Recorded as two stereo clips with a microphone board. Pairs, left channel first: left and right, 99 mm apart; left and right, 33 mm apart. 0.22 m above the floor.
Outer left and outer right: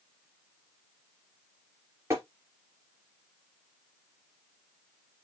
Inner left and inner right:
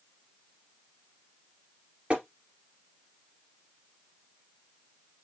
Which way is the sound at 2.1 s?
30° right (ahead or behind).